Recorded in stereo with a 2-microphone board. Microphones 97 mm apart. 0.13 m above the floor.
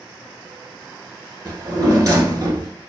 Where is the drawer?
40° right (ahead or behind), 1.1 m.